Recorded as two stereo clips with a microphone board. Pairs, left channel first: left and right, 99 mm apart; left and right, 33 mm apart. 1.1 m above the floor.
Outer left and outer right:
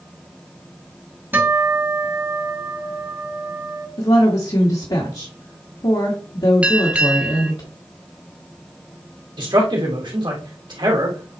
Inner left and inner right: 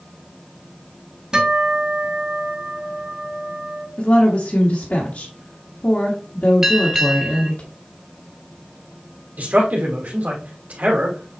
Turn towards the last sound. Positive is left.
turn(degrees=-50)  # may be behind; listen again after turning